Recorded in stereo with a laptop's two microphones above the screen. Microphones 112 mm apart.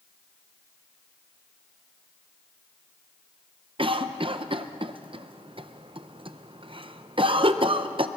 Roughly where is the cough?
Right.